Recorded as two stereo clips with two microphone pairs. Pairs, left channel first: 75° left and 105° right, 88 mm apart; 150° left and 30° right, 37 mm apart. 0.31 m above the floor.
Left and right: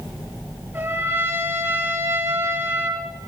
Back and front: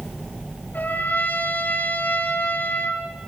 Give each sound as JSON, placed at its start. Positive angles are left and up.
{"t": 0.7, "sound": "a trumpet", "azimuth_deg": -170, "distance_m": 4.5}